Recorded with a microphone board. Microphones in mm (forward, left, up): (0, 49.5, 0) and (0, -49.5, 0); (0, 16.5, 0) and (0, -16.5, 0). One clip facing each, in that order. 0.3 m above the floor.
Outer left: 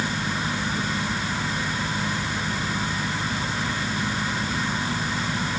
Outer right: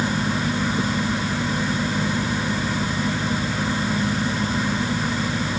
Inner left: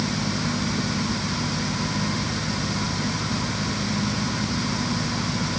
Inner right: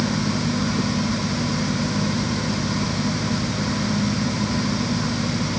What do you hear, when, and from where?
Only background noise.